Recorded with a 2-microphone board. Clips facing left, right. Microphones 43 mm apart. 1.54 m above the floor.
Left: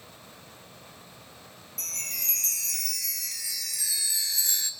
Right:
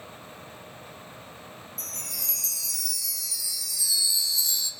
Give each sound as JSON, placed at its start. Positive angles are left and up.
{"t": 1.8, "sound": "a chime", "side_deg": 45, "distance_m": 1.3}